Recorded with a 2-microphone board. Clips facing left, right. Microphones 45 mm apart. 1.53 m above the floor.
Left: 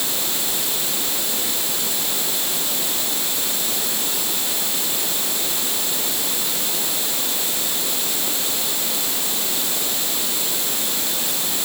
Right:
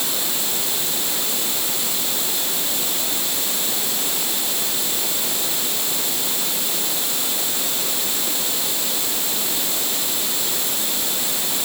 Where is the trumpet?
No trumpet in this recording.